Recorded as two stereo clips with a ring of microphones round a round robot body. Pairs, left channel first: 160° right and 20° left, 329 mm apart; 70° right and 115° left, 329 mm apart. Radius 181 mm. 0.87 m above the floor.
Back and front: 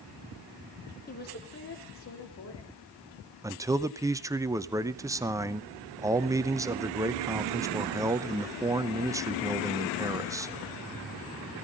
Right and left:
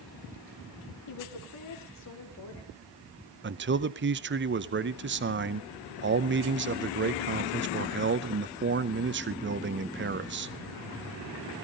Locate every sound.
1.1 s a woman speaking: 95° right, 2.5 m; by 2.8 s 115° right, 5 m
3.4 s a man speaking: 95° left, 0.8 m